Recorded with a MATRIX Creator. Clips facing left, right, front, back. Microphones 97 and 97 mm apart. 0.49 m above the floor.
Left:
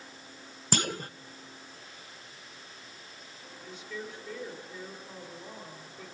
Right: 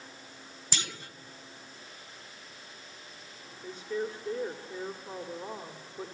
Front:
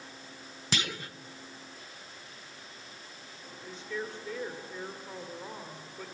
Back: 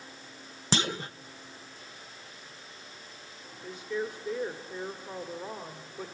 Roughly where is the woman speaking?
Right.